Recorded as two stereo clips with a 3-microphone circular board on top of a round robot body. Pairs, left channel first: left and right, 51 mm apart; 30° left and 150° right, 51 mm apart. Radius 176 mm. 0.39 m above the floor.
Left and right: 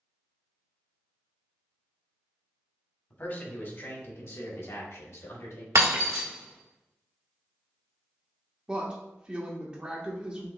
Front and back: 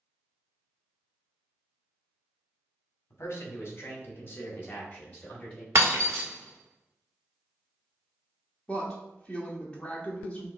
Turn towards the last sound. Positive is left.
turn(degrees=-30)